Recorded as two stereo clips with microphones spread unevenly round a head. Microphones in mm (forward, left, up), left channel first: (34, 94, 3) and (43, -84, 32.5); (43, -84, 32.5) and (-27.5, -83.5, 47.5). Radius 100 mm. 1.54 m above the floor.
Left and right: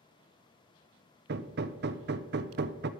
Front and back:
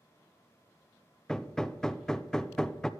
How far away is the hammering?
About 0.5 m.